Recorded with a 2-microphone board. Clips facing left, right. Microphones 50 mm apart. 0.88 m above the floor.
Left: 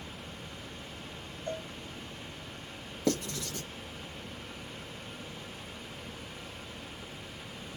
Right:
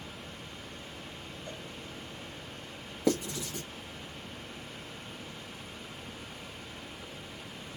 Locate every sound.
1.5 s a cowbell: 60° left (ahead or behind), 0.5 m
3.1 s writing: 10° right (ahead or behind), 1.1 m